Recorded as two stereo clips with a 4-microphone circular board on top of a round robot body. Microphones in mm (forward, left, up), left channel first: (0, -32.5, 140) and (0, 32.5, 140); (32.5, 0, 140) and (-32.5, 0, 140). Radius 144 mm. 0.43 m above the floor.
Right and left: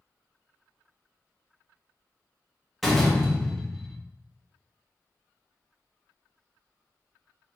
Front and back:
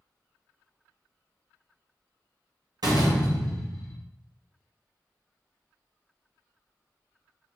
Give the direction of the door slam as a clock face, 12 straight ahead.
6 o'clock.